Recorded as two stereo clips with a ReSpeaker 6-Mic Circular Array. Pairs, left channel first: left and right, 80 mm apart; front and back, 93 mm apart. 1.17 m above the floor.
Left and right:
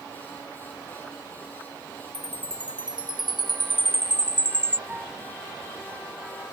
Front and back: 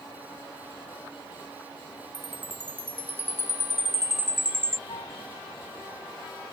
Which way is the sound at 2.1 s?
110° right.